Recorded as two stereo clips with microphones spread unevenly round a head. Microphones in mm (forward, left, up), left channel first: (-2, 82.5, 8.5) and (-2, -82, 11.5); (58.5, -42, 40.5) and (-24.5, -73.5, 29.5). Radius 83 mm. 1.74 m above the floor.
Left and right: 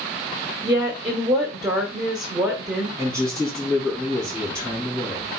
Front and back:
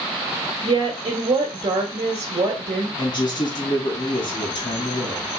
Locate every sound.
0.6 s a woman speaking: 155° right, 1.2 m
3.0 s a man speaking: 15° right, 2 m